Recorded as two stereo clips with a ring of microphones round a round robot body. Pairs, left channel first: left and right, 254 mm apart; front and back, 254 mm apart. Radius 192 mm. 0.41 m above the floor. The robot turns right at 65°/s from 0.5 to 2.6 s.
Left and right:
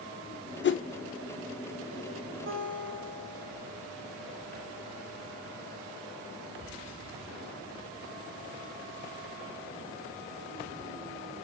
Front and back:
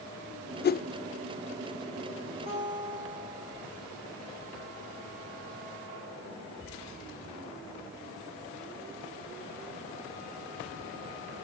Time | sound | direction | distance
0.6 | a whoosh | 50° left | 0.6 m
2.5 | a guitar | 115° right | 2.5 m